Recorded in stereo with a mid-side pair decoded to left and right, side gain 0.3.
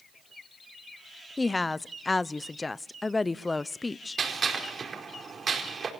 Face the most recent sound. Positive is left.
turn(degrees=-55)